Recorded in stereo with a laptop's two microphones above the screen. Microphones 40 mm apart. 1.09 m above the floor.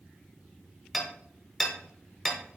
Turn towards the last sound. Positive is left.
turn(degrees=5)  # may be behind; listen again after turning